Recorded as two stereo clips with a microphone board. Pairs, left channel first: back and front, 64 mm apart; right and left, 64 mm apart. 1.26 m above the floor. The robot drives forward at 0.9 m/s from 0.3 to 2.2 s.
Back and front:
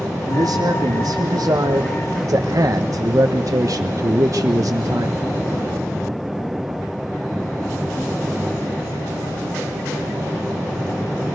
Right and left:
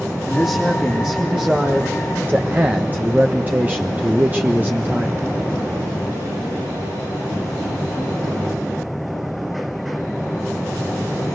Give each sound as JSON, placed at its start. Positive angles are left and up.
{"t": 0.3, "sound": "a man speaking", "azimuth_deg": 10, "distance_m": 3.0}